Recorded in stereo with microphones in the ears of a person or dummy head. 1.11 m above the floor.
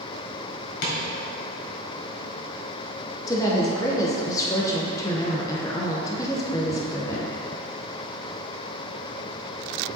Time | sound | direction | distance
0.8 | tapping | 60° left (ahead or behind) | 1.5 m
3.3 | a woman speaking | 20° left (ahead or behind) | 0.8 m